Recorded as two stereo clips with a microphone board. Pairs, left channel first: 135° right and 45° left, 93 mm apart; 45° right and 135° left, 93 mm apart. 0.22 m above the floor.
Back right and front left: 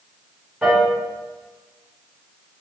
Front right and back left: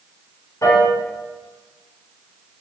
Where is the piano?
45° right, 1.1 m.